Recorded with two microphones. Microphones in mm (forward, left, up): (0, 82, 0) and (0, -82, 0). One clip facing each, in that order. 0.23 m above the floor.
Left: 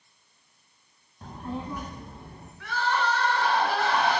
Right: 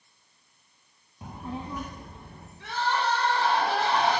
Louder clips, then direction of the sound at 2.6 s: Even; 30° right (ahead or behind).